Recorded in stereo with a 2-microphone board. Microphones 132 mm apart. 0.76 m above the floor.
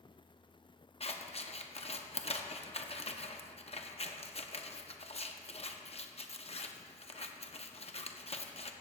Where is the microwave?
No microwave in this recording.